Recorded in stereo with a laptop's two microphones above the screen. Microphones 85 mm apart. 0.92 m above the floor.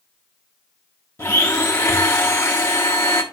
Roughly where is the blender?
Left.